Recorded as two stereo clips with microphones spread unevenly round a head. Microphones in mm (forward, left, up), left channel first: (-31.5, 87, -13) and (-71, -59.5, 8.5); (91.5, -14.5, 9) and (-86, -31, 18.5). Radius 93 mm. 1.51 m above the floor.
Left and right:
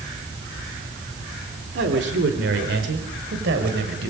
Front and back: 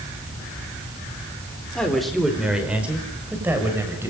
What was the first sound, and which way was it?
A man speaking, 80° right.